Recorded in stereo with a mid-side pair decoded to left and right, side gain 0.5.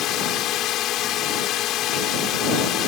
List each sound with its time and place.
0.0 s a drone: 70° left